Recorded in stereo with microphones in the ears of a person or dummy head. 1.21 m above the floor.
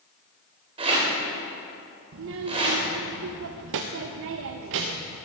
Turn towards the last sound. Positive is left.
turn(degrees=-65)  # may be behind; listen again after turning